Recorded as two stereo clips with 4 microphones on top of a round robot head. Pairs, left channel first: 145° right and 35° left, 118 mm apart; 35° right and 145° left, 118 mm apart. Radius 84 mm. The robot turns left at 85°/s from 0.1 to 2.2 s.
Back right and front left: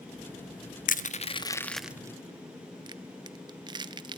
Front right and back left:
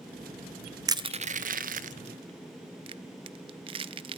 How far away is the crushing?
About 0.6 m.